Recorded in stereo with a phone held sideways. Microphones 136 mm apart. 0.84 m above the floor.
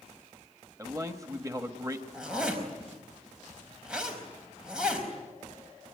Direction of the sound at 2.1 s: 5° right (ahead or behind).